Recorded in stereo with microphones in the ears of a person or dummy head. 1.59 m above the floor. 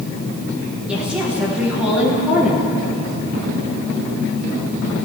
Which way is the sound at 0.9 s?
5° right (ahead or behind).